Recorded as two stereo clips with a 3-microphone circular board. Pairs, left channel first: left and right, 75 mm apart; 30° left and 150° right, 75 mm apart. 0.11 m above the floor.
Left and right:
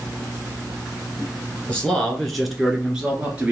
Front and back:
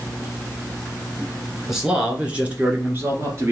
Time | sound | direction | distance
1.7 | a man speaking | 130° left | 1.2 m